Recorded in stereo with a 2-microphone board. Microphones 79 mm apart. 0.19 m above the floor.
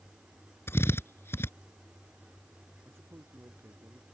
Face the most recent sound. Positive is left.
turn(degrees=-35)  # may be behind; listen again after turning